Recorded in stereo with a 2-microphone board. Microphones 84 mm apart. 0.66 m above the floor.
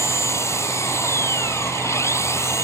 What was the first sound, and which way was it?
An engine running, 35° left (ahead or behind).